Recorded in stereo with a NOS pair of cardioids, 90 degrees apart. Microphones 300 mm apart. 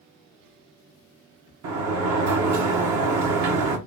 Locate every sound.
1.6 s a sliding door: 70° right, 1.3 m